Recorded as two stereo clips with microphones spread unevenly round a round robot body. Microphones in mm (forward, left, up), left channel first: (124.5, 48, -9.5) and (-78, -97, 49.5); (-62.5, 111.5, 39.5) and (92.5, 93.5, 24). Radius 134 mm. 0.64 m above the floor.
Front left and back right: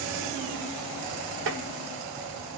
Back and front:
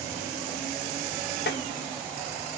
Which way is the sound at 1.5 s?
170° left.